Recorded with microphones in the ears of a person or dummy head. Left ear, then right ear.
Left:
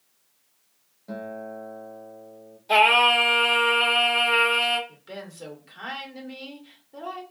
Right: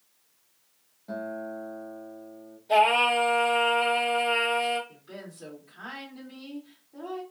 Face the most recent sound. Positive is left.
turn(degrees=65)  # may be behind; listen again after turning